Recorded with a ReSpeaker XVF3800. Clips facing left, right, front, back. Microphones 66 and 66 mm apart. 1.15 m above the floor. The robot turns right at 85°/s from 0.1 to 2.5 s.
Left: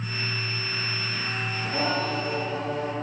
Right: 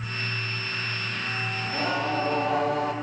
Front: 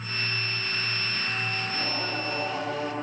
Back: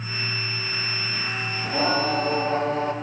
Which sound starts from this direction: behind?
Singing, at 1.6 s.